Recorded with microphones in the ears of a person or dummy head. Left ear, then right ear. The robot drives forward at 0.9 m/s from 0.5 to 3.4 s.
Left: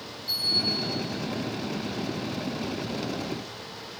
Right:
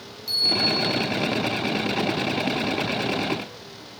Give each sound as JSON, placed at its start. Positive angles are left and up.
{"t": 0.3, "sound": "a bell", "side_deg": -40, "distance_m": 1.4}